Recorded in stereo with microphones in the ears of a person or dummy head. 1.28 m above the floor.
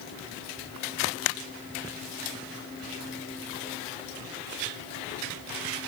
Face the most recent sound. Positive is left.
No sound to turn to.